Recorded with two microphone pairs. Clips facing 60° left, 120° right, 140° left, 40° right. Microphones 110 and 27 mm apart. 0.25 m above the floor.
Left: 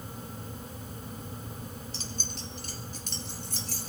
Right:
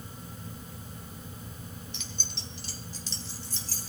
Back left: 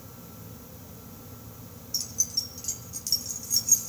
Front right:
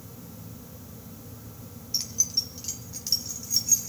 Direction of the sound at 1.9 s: 10° left.